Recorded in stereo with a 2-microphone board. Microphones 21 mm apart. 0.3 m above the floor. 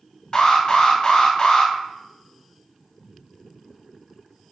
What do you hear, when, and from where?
0.3 s an alarm: 40° left (ahead or behind), 0.8 m